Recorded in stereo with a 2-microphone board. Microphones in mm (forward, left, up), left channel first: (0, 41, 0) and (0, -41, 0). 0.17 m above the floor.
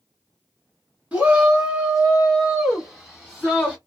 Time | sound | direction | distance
1.1 | a shout | 20° right (ahead or behind) | 1.8 m